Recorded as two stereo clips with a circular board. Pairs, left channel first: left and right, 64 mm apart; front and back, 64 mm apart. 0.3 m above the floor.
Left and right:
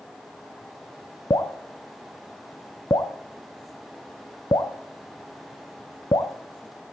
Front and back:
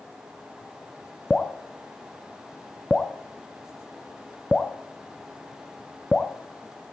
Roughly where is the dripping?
Left.